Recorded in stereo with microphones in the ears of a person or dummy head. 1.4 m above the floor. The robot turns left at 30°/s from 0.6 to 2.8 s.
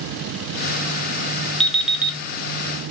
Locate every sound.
1.6 s an alarm clock: 5° left (ahead or behind), 0.9 m; by 2.2 s 10° right (ahead or behind), 0.9 m